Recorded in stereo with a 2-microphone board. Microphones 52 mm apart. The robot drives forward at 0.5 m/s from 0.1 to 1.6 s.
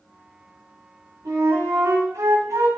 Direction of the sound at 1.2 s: 80° right.